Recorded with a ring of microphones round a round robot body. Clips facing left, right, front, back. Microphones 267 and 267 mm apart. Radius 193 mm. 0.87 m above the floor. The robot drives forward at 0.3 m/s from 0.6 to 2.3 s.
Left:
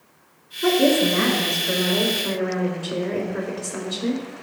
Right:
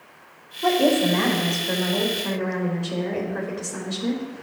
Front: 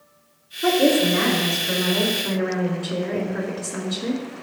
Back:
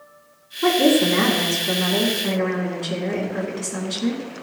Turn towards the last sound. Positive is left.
turn(degrees=175)